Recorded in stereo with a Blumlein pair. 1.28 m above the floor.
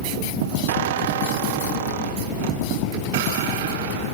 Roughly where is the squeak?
Ahead right.